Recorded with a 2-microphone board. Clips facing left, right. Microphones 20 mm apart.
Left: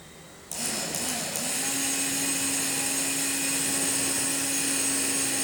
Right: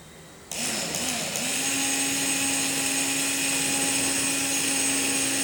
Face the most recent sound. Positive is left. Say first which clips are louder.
# right 2 dB
turn(degrees=-35)  # may be behind; listen again after turning